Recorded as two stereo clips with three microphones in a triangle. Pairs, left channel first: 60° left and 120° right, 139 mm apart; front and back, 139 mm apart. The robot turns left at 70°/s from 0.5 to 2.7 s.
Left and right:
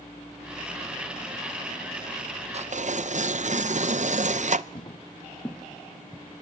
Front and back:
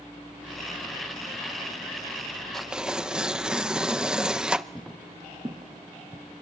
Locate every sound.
2.5 s tearing paper: 85° right, 0.5 m; by 4.7 s 95° right, 0.5 m
4.8 s footsteps: 85° left, 1.4 m; by 6.2 s 170° left, 1.8 m